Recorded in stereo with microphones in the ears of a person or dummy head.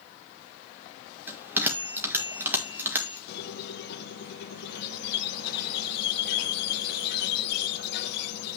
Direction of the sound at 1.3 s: 10° right (ahead or behind).